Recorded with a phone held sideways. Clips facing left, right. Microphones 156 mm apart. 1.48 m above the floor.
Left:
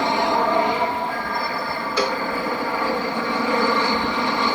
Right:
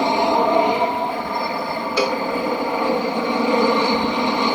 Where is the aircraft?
20° right (ahead or behind).